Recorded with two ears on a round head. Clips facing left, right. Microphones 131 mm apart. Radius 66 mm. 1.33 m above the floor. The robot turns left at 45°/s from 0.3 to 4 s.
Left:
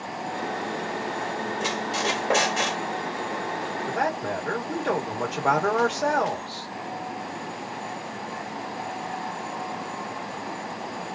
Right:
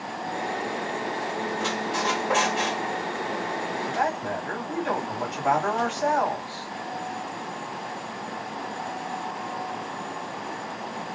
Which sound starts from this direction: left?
A man speaking, at 3.9 s.